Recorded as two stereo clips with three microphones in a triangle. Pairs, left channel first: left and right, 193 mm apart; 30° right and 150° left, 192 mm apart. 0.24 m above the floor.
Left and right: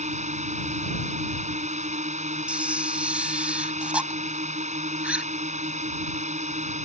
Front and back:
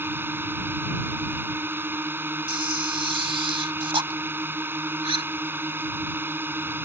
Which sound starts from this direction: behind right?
A drone, at 0.0 s.